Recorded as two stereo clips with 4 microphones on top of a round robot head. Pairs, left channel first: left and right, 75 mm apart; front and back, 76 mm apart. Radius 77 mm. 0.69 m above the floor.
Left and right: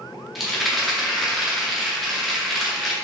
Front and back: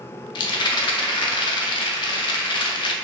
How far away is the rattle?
About 0.6 m.